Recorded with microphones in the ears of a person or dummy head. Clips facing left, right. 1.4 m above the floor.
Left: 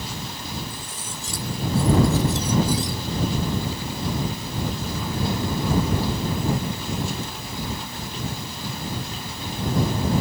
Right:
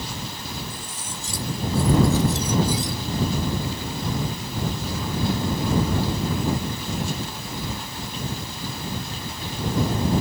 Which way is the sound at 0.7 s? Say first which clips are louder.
Even; 75° right (ahead or behind).